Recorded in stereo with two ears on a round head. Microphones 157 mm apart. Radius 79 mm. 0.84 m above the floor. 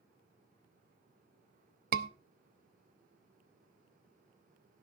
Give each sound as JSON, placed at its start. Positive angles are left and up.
{"t": 1.9, "sound": "a scream", "side_deg": -55, "distance_m": 0.7}